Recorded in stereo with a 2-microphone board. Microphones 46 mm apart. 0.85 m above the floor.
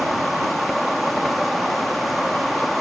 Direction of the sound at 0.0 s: Centre (ahead or behind).